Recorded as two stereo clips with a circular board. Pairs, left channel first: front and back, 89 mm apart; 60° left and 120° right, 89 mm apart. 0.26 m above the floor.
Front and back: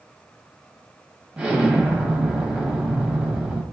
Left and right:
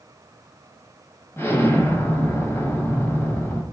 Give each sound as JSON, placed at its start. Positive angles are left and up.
{"t": 1.4, "sound": "an explosion", "azimuth_deg": 110, "distance_m": 0.9}